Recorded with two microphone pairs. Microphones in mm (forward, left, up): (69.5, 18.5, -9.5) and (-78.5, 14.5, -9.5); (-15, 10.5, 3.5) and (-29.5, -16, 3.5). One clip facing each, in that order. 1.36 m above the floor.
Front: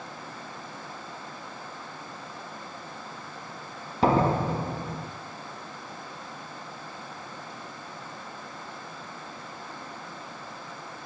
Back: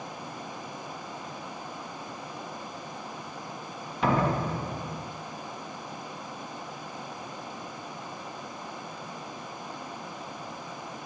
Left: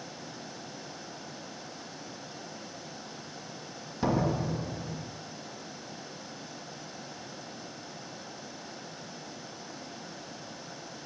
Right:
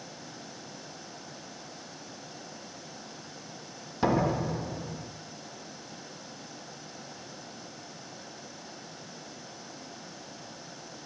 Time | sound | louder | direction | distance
4.0 | a door slam | front 3 dB, right 2 dB | 50° right | 1.3 m